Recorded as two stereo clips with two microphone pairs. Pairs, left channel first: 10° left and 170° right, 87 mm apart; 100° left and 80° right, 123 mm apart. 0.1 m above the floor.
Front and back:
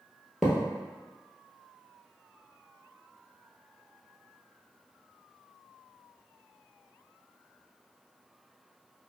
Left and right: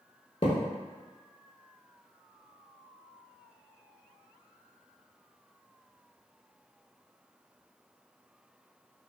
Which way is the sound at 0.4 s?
105° left.